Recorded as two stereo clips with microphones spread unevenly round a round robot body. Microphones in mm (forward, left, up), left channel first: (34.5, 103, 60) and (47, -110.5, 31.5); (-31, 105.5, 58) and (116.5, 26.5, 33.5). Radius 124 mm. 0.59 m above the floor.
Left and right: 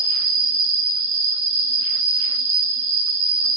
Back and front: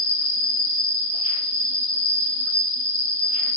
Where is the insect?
115° right, 1.0 m.